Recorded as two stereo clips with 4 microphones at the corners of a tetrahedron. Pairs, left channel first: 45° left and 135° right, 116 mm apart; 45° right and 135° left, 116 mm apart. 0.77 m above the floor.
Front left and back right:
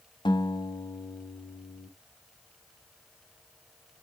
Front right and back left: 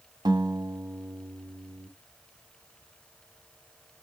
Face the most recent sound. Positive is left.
turn(degrees=85)